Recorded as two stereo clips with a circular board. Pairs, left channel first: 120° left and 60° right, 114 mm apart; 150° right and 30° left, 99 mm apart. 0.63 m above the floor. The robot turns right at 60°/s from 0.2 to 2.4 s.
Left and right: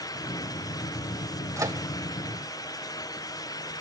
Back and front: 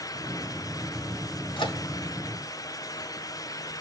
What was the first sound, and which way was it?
A microwave, 120° right.